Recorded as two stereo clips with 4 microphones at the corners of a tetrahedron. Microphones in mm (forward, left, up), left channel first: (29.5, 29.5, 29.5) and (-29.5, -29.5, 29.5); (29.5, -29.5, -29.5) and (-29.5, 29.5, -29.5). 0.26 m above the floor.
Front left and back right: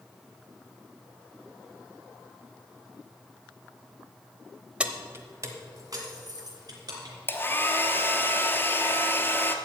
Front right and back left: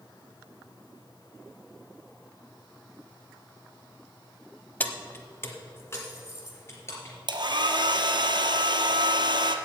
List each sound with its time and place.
4.8 s keys jangling: 75° right, 0.8 m; by 7.1 s 100° right, 3.5 m
7.3 s a hair dryer: 110° left, 1.0 m